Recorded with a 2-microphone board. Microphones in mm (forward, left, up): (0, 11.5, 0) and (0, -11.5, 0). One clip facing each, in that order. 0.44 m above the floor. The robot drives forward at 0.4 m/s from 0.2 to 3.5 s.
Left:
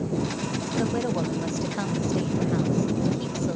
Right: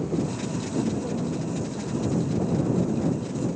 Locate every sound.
0.8 s a woman speaking: 65° left (ahead or behind), 2 m